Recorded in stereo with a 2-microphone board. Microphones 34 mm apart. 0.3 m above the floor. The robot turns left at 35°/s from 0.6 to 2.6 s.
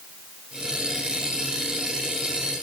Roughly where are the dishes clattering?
I don't hear dishes clattering.